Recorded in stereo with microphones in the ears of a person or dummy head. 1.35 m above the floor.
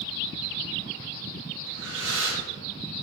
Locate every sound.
1.7 s breathing: 75° right (ahead or behind), 2.5 m